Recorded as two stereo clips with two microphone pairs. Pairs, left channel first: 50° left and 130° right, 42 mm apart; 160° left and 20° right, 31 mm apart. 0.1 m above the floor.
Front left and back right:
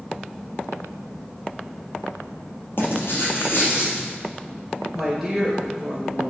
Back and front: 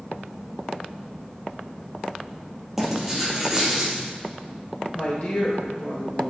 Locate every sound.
2.8 s writing: 55° left, 2.5 m
4.9 s a woman speaking: 145° left, 1.9 m